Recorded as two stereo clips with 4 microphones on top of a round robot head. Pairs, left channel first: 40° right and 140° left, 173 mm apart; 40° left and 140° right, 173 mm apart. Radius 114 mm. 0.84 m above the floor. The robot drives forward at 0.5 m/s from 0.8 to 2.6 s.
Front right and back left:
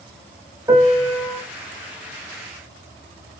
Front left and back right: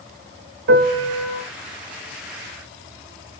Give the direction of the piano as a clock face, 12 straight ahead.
5 o'clock.